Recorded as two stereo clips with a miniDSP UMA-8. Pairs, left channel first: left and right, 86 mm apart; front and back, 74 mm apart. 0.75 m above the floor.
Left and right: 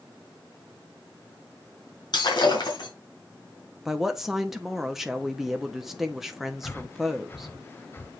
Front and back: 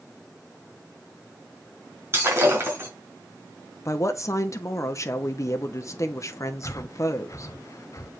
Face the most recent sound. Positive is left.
turn(degrees=30)